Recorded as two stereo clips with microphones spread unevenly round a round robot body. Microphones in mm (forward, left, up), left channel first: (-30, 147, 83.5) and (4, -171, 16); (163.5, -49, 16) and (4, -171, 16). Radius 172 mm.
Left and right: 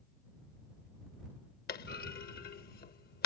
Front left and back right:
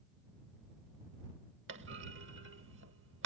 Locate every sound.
1.7 s a clunk: 160° left